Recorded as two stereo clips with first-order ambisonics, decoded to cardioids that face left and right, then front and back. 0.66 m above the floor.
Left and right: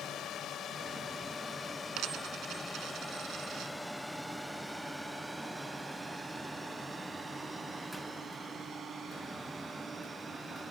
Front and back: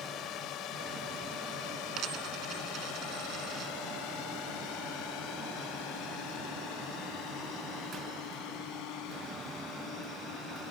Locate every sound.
0.0 s a drone: 45° left; by 10.7 s 30° right
2.0 s a dropped coin: 135° right